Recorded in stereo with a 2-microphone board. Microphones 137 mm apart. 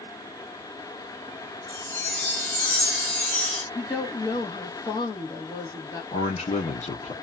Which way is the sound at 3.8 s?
35° left (ahead or behind).